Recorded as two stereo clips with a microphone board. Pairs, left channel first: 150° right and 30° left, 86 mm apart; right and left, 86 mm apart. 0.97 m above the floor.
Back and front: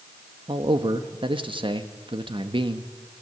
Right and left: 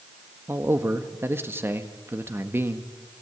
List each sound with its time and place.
0.5 s a man speaking: 30° left, 1.4 m